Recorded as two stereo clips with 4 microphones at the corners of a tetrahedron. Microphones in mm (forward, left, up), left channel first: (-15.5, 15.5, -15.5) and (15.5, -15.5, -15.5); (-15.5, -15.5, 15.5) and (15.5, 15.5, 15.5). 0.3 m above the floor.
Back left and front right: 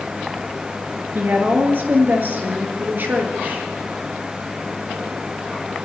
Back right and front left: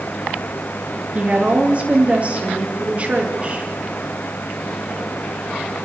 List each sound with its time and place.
1.1 s a woman speaking: 10° right, 5 m